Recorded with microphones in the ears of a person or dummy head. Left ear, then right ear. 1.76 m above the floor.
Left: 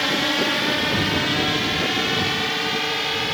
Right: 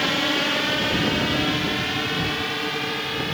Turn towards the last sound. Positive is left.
turn(degrees=20)  # may be behind; listen again after turning